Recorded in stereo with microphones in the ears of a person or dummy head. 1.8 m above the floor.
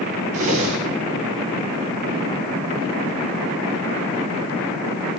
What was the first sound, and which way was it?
A whoosh, 40° right (ahead or behind).